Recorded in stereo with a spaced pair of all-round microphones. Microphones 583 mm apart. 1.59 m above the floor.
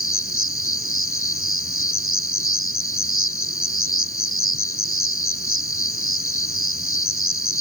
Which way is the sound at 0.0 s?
20° left (ahead or behind).